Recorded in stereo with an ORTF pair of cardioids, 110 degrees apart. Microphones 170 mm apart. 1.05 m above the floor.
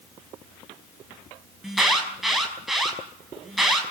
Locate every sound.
1.6 s an alarm: straight ahead, 5.5 m